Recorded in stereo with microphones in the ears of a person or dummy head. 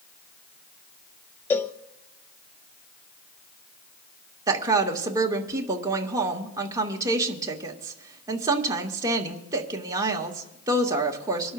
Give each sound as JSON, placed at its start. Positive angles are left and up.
{"t": 1.5, "sound": "a cowbell", "side_deg": 10, "distance_m": 0.6}
{"t": 4.5, "sound": "a woman speaking", "side_deg": -20, "distance_m": 1.6}